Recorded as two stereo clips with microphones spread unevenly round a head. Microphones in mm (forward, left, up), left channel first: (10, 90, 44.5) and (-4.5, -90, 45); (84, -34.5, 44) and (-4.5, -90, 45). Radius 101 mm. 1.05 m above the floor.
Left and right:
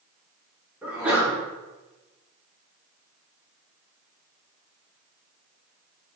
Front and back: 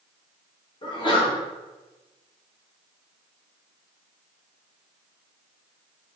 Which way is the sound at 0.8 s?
10° right.